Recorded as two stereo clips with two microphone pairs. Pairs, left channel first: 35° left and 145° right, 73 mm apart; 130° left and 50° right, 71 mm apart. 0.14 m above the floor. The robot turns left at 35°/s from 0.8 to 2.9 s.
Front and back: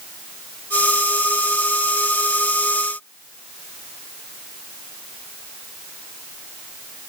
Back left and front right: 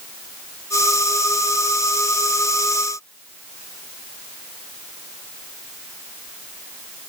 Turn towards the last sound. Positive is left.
No sound to turn to.